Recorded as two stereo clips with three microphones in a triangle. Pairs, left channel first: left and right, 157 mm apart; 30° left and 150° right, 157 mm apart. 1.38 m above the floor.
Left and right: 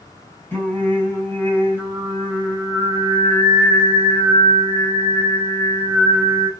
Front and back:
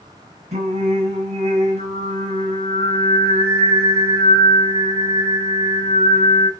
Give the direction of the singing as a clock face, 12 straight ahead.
6 o'clock.